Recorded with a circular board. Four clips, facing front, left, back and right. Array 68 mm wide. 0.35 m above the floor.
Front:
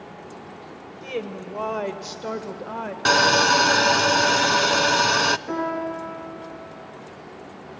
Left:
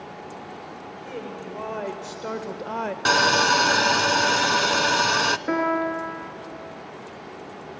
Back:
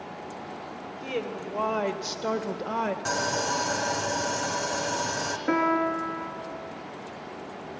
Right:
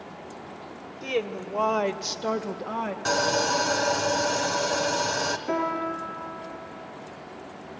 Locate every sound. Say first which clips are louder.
1.0 s a woman speaking: right 8 dB, front 2 dB; 75° right, 1.3 m; by 3.0 s 125° left, 1.0 m
3.0 s sawing: left 6 dB, front 10 dB; 35° left, 0.5 m
5.5 s a piano: left 4 dB, back 2 dB; 135° left, 4 m